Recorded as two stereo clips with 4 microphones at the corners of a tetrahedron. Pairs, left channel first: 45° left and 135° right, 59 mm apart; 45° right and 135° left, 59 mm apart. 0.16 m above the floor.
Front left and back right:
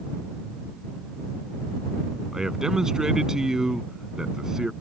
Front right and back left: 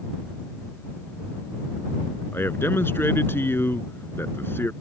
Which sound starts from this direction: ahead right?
A man speaking, at 2.3 s.